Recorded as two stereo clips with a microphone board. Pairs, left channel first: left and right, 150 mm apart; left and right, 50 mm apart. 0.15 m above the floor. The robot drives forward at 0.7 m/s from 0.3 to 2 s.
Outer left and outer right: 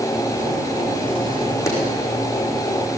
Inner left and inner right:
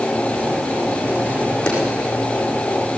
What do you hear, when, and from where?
1.7 s a clap: 20° left (ahead or behind), 6.5 m